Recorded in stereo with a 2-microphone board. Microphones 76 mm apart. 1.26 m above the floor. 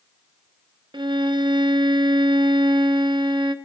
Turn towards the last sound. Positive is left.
turn(degrees=-75)  # may be behind; listen again after turning